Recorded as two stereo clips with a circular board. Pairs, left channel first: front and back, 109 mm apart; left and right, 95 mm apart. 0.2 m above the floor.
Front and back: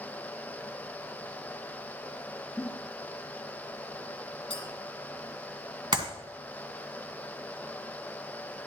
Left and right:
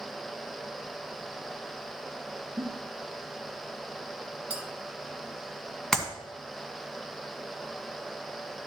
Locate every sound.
2.6 s a giggle: 80° right, 1.9 m
4.5 s a clink: 25° right, 2.5 m
5.9 s a clap: 175° left, 1.7 m